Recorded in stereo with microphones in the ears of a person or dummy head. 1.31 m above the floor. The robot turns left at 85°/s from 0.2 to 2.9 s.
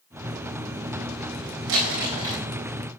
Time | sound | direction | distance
1.7 | crumpling | 95° right | 3.5 m